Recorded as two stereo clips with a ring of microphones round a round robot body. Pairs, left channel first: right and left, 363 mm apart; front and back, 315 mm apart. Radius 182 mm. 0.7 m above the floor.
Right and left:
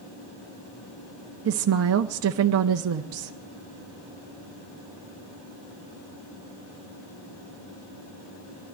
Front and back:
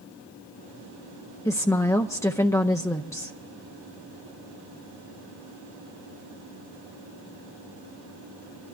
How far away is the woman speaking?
About 0.5 m.